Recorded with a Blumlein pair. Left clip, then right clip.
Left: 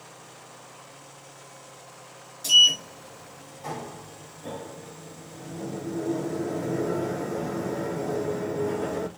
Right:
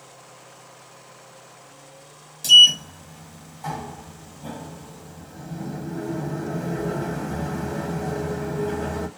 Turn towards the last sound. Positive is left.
turn(degrees=-70)